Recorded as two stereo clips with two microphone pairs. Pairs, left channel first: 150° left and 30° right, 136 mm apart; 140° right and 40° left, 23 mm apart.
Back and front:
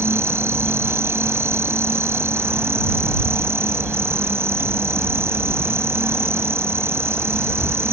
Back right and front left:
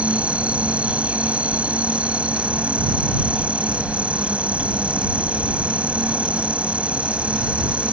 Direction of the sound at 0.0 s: 40° left.